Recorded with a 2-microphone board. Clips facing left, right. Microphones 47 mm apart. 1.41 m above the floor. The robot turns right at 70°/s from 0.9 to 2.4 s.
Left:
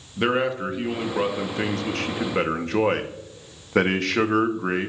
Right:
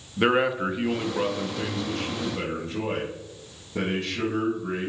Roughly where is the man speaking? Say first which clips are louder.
Right 1 dB; ahead.